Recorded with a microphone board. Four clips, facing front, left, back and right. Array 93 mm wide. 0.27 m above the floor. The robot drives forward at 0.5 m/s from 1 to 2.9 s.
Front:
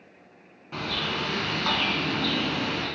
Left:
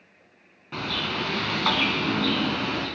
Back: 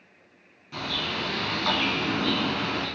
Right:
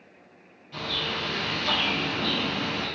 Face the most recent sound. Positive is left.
turn(degrees=135)